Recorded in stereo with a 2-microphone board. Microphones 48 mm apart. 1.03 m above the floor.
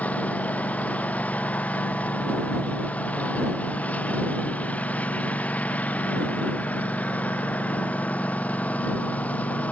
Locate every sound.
0.0 s a lawn mower: 30° left (ahead or behind)